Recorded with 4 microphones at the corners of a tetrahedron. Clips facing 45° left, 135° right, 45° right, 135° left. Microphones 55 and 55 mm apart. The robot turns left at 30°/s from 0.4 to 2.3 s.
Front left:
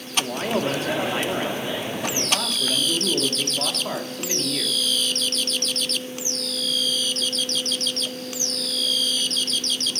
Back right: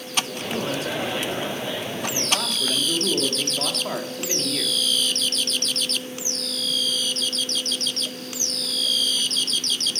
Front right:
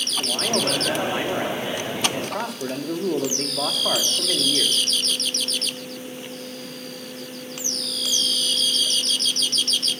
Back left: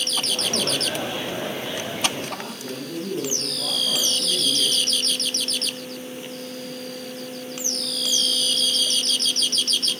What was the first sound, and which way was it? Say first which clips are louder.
A man speaking: front left 4 dB, front right 5 dB; 10° left.